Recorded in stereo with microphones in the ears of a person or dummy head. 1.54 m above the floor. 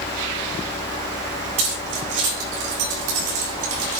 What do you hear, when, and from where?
1.6 s keys jangling: 75° right (ahead or behind), 6.5 m; by 4.0 s 80° right, 5 m